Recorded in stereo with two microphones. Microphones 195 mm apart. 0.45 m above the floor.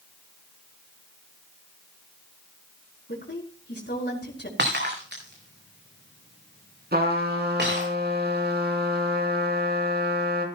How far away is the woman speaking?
About 3.5 m.